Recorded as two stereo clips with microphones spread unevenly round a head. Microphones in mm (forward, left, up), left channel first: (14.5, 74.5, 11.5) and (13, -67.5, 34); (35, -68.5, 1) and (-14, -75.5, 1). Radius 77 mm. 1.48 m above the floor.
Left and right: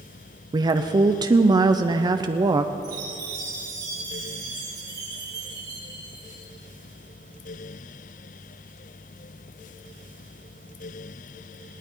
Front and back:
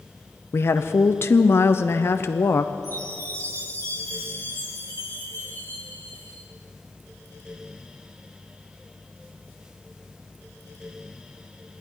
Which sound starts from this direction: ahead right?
A woman speaking, at 0.5 s.